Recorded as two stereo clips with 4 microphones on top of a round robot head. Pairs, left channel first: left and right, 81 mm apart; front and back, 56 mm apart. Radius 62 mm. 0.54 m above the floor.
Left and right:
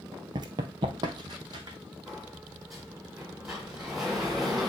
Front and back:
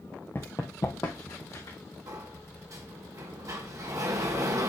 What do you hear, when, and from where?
0.3 s running footsteps: 70° right, 0.6 m; by 1.8 s 50° right, 2 m
2.1 s a sliding door: 175° right, 2 m